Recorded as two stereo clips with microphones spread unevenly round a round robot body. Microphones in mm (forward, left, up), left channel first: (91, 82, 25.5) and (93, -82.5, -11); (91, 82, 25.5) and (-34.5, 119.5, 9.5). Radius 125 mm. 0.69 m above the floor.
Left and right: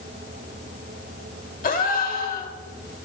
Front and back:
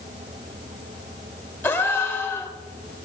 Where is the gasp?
55° left, 1.3 m.